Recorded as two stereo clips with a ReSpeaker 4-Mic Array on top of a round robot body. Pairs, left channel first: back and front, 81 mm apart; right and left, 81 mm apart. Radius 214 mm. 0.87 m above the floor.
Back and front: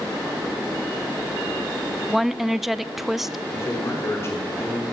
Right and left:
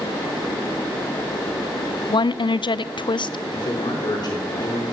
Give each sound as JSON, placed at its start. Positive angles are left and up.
{"t": 2.1, "sound": "a woman speaking", "azimuth_deg": -90, "distance_m": 0.5}
{"t": 3.5, "sound": "a man speaking", "azimuth_deg": -125, "distance_m": 3.5}